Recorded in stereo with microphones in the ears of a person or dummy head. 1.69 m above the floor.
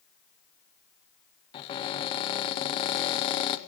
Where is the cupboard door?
30° left (ahead or behind), 0.7 m.